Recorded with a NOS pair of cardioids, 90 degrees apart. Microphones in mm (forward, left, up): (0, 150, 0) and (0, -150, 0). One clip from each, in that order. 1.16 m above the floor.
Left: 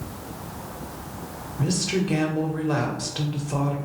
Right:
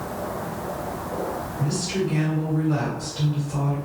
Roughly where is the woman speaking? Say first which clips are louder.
Left 3 dB; ahead left.